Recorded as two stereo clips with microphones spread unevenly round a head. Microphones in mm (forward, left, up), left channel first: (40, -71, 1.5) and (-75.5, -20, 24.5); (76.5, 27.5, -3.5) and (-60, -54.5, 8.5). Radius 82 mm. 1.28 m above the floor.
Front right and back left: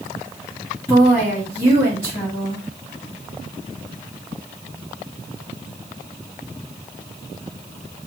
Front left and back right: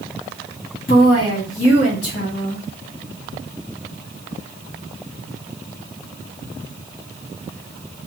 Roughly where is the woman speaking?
Left.